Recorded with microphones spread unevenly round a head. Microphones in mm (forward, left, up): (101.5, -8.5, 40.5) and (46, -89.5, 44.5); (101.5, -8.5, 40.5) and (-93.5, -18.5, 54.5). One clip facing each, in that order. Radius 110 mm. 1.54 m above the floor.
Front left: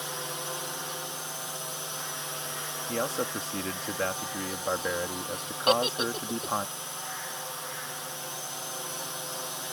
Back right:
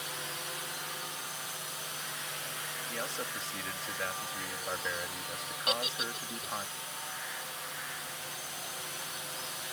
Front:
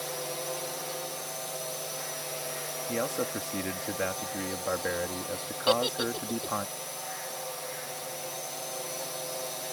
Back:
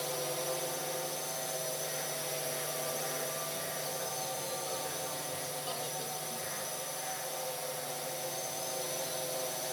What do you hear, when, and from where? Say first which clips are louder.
0.0 s a drone: front left 5 dB, even; 95° left
2.9 s a man speaking: front left 10 dB, front 8 dB; 15° left
5.7 s a giggle: front left 11 dB, front 13 dB; 20° left